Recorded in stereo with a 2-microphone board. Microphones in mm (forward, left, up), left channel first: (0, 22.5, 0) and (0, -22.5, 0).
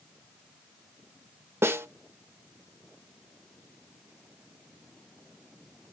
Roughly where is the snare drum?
Right.